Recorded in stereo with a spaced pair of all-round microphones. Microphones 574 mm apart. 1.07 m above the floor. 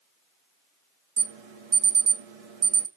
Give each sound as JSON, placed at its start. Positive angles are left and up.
{"t": 1.2, "sound": "an alarm", "side_deg": -75, "distance_m": 0.9}